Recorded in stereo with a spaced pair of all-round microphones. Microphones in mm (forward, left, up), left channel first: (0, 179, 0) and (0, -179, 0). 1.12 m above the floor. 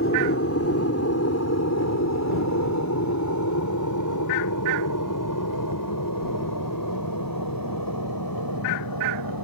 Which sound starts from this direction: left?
An aircraft, at 0.0 s.